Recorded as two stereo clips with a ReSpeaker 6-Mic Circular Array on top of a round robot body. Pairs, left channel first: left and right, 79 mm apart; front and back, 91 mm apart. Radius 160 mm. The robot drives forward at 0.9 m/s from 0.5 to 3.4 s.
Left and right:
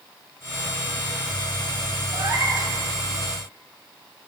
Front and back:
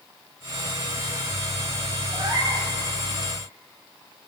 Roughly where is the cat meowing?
Behind right.